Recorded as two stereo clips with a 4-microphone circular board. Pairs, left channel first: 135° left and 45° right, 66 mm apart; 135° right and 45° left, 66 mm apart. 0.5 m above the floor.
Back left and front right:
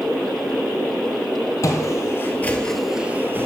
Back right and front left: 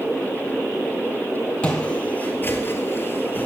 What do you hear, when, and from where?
1.6 s footsteps: 155° left, 0.9 m; by 3.5 s 80° right, 0.6 m